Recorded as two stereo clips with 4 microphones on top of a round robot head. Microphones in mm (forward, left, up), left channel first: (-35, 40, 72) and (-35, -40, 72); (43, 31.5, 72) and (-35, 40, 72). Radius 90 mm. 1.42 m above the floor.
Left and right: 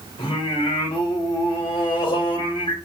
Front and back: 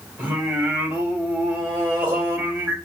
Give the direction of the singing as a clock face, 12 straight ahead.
8 o'clock.